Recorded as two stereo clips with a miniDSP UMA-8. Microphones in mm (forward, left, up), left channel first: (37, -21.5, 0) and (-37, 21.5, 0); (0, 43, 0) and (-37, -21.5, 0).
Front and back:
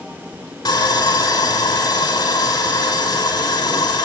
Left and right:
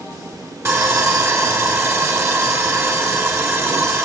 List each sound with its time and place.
0.7 s sawing: 70° right, 4.5 m